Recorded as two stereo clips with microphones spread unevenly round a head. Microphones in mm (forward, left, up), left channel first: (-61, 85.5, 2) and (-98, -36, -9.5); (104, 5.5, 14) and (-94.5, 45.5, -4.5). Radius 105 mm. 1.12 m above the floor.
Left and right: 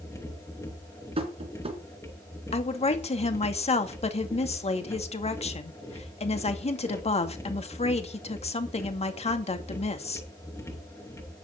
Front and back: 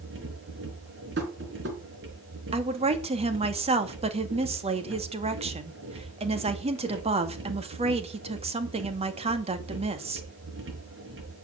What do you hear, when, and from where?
0.0 s a machine running: 140° left, 5 m
1.2 s tapping: 150° right, 4 m
2.5 s a woman speaking: 110° left, 2.5 m